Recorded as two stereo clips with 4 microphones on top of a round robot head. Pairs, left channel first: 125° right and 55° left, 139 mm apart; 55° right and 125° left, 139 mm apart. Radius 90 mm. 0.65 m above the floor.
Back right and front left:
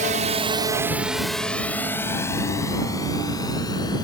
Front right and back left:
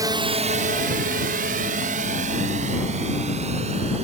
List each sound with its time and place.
0.0 s a drone: 65° left; by 4.0 s 170° left